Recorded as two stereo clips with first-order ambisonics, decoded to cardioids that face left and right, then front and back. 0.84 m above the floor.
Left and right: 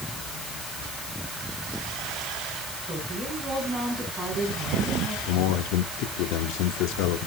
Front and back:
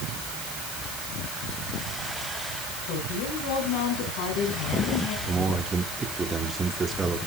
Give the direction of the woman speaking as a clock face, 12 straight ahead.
12 o'clock.